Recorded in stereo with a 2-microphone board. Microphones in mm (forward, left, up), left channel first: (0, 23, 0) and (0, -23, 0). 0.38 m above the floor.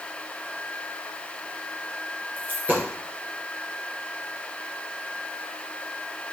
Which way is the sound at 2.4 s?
45° right (ahead or behind).